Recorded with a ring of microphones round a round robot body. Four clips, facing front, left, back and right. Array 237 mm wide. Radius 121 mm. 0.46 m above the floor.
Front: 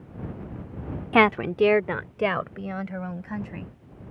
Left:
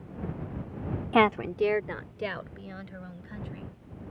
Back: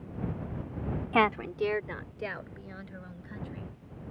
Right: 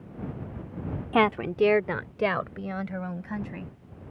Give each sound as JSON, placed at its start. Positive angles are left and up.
{"t": 1.1, "sound": "a woman speaking", "azimuth_deg": 10}